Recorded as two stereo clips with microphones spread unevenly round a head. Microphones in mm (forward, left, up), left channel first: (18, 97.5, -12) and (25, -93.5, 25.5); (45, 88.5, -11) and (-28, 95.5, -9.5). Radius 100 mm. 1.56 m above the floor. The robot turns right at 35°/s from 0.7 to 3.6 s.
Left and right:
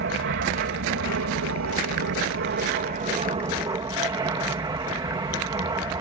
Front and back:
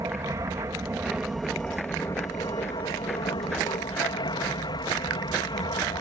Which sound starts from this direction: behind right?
An aircraft, at 0.0 s.